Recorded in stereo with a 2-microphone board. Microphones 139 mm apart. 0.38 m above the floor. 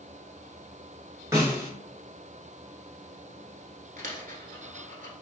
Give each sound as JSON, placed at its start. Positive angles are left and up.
{"t": 1.3, "sound": "a snare drum", "side_deg": -20, "distance_m": 1.0}
{"t": 4.0, "sound": "a dropped coin", "side_deg": -75, "distance_m": 1.0}